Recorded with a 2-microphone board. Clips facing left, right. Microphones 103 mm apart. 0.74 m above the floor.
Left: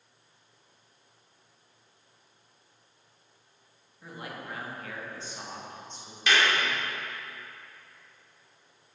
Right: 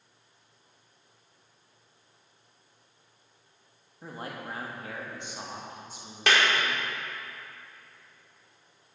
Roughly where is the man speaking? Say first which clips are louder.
Right 2 dB; right.